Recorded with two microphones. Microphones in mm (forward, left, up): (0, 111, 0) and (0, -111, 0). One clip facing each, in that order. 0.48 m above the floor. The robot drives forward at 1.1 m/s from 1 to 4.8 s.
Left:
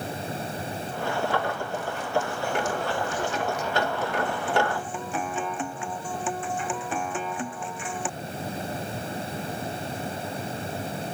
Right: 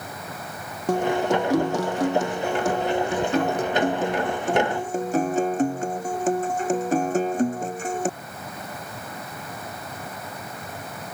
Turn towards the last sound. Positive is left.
turn(degrees=-40)  # may be behind; listen again after turning